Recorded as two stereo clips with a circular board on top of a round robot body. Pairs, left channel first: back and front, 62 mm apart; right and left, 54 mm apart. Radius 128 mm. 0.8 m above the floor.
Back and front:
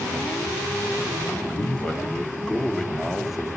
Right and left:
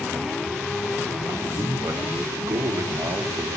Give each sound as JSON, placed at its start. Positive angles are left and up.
{"t": 1.3, "sound": "a man speaking", "azimuth_deg": 120, "distance_m": 2.5}